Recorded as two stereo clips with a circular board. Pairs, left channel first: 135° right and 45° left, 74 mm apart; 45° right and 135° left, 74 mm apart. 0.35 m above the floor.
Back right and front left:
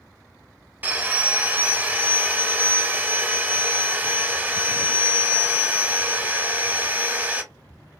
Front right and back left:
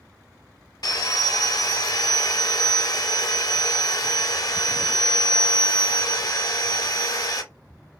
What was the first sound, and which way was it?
Sawing, 20° right.